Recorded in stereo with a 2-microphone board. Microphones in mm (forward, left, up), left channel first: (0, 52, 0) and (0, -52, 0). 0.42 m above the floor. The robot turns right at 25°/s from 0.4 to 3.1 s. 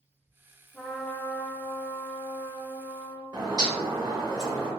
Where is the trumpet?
15° left, 0.6 m; by 3.2 s 75° left, 0.6 m.